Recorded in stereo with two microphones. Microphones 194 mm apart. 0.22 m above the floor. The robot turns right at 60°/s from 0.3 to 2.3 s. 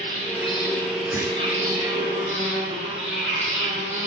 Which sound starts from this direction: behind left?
An insect, at 0.0 s.